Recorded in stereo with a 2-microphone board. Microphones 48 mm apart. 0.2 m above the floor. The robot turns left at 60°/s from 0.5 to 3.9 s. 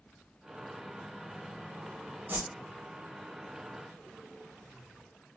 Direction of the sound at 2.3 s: 40° right (ahead or behind).